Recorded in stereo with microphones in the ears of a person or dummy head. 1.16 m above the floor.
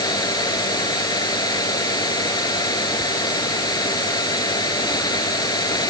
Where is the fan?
20° left (ahead or behind).